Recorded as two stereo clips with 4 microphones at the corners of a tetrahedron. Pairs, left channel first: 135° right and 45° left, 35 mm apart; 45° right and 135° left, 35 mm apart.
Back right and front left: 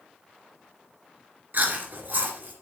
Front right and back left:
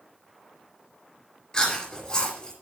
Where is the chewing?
20° left, 4 m.